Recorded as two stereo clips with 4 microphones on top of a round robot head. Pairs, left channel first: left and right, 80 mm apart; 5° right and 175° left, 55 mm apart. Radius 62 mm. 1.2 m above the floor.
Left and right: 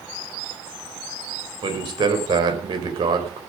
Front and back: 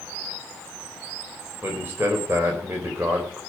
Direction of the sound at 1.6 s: 120° right.